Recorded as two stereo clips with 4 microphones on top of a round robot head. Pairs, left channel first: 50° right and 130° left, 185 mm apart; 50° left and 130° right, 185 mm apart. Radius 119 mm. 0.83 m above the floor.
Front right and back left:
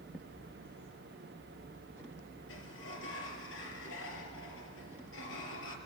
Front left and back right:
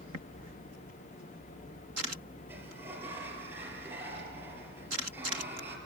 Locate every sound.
2.5 s a sliding door: 50° right, 4 m